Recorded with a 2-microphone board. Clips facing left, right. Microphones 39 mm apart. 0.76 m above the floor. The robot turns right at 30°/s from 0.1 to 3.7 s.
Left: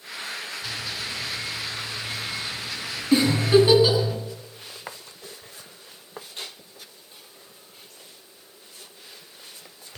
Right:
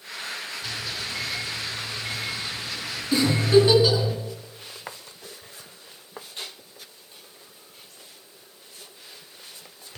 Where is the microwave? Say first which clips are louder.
Even; 80° right, 8.5 m; by 4.1 s 10° left (ahead or behind), 8.5 m.